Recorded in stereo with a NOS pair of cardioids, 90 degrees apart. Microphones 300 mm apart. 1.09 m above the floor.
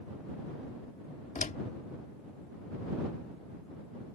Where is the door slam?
25° left.